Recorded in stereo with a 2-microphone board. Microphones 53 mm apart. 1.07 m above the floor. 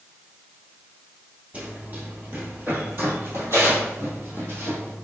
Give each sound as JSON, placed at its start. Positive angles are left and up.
{"t": 1.5, "sound": "running footsteps", "side_deg": -25, "distance_m": 1.5}